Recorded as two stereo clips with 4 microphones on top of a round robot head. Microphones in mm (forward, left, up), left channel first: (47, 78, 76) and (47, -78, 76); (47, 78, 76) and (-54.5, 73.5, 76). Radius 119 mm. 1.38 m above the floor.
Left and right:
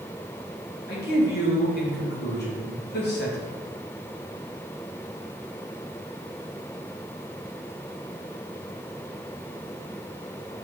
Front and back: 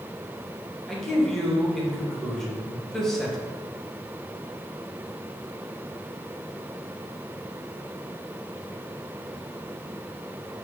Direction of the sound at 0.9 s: 90° left.